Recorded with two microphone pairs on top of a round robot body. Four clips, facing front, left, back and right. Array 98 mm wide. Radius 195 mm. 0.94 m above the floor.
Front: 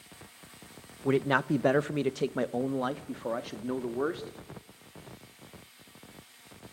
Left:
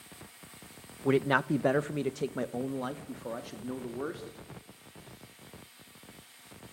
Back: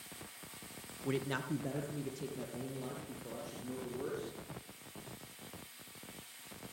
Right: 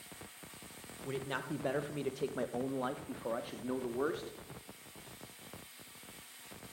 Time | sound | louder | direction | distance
1.1 | a man speaking | left 13 dB, front 11 dB | 65° left | 1.1 m